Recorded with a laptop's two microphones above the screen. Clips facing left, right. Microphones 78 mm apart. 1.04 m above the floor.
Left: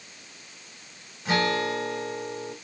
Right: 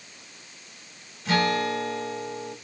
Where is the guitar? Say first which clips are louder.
Right 1 dB; 20° left (ahead or behind), 4.5 m.